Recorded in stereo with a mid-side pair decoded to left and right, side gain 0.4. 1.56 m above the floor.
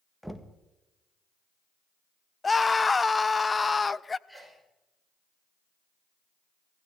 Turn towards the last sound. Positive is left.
turn(degrees=-5)